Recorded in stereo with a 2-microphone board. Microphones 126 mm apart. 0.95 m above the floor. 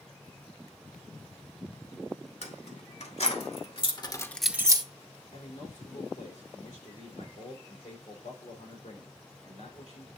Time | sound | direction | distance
2.4 | keys jangling | 75° left (ahead or behind) | 2.5 m
5.3 | a man speaking | 75° left (ahead or behind) | 2.5 m